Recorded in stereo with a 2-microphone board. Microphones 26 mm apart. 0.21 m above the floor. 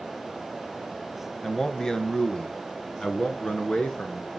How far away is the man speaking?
About 1.0 m.